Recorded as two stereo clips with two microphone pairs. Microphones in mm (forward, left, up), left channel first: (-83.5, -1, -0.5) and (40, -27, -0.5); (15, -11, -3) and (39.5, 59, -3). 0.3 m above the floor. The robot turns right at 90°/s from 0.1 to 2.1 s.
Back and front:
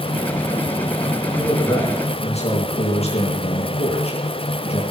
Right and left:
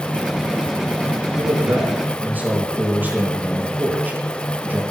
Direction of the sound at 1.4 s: 70° left.